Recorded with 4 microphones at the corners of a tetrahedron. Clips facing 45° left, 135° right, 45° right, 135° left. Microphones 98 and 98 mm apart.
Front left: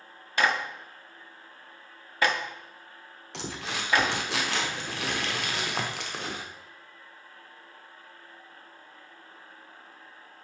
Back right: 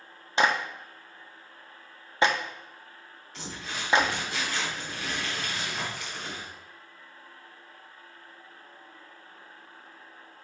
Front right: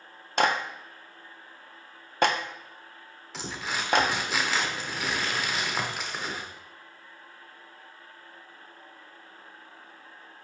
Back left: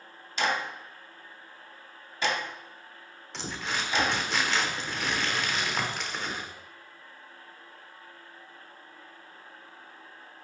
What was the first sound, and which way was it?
A clap, 70° right.